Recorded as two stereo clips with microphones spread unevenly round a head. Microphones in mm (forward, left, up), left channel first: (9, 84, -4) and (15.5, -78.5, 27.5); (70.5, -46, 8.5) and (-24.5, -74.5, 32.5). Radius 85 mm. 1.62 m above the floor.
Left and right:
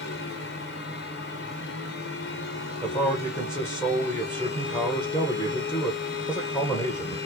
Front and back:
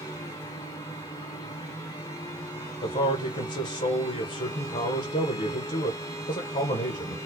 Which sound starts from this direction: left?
A fan, at 0.0 s.